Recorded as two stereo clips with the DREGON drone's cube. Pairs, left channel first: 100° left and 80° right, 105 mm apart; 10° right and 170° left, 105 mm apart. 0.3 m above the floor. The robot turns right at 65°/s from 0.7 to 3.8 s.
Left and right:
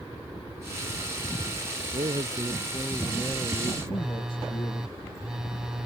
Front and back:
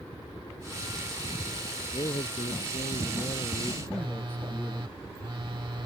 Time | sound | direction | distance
1.9 | a man speaking | 55° right | ?
3.9 | a phone buzzing | 160° right | ?